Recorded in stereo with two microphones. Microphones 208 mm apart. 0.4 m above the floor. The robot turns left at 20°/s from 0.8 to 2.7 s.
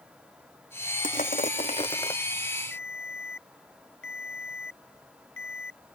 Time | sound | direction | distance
1.0 | crushing | 40° left (ahead or behind) | ?
2.7 | a ringtone | 75° left (ahead or behind) | ?